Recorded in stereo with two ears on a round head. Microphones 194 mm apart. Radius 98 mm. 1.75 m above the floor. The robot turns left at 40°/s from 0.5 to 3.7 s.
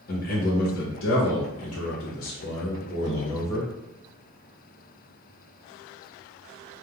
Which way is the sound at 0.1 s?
135° left.